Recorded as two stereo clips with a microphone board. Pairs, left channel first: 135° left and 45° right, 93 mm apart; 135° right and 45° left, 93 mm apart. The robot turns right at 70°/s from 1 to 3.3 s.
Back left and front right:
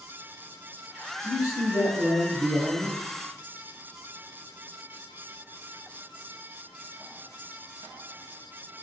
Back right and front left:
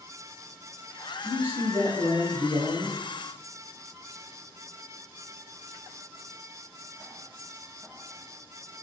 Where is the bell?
I don't hear a bell.